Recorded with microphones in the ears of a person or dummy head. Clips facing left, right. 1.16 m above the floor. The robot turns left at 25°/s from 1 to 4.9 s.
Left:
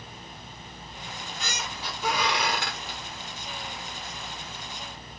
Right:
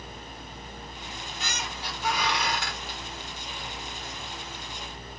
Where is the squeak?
95° left, 1.2 m; by 3.0 s 45° left, 1.2 m.